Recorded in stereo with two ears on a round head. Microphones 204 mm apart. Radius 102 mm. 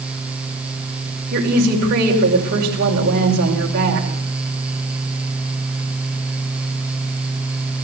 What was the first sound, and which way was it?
A woman speaking, 45° right (ahead or behind).